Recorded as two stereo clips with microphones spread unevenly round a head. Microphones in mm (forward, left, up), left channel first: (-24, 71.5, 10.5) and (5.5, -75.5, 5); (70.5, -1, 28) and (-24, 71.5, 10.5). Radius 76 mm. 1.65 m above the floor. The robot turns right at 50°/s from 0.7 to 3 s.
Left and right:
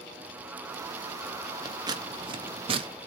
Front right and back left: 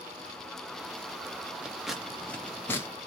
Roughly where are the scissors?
Behind right.